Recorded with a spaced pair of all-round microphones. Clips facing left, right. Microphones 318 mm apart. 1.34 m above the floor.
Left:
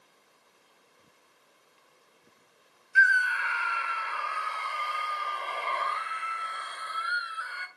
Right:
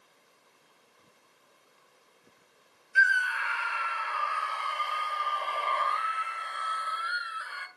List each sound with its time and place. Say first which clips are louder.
3.0 s a scream: left 2 dB; 50° left (ahead or behind), 1.9 m